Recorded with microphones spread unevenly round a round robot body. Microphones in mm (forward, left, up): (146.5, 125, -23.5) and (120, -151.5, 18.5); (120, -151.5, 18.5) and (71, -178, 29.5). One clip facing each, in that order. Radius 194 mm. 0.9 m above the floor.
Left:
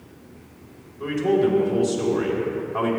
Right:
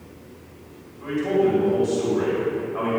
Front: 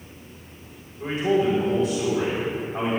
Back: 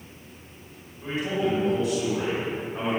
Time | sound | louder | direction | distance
1.0 | a man speaking | left 1 dB, front 5 dB | 80° left | 3 m